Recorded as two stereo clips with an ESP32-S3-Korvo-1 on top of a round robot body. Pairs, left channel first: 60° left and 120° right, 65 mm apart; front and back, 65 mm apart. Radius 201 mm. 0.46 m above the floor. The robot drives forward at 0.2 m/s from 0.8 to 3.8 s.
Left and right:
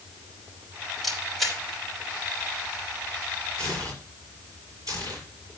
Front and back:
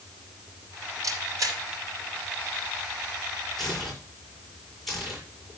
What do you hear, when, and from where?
1.0 s a camera shutter: 150° left, 5 m
3.6 s tearing paper: 85° right, 6.5 m; by 5.2 s 90° right, 6.5 m